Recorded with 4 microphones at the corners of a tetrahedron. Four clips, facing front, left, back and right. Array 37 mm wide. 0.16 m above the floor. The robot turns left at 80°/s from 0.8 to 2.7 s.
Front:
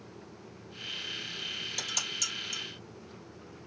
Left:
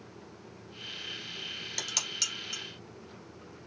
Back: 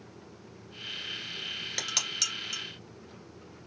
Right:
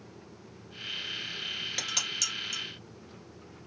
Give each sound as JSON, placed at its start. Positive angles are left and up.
{"t": 1.8, "sound": "dishes clattering", "azimuth_deg": -155, "distance_m": 1.8}